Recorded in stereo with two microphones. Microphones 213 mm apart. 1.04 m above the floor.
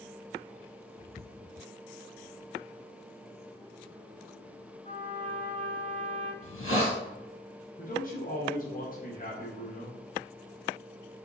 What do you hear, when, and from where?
4.8 s a trumpet: 35° left (ahead or behind), 1.3 m
6.4 s a hiss: 85° left, 1.2 m
7.8 s a man speaking: 40° left (ahead or behind), 0.8 m